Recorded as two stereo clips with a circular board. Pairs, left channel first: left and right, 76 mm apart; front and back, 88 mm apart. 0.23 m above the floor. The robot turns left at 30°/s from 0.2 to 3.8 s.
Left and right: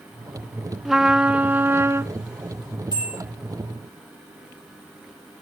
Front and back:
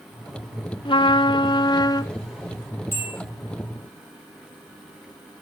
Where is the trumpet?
Straight ahead, 0.8 m; by 2.1 s 40° right, 0.8 m.